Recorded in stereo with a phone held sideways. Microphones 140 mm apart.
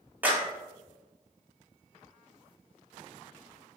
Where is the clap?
10° right (ahead or behind), 1.5 m.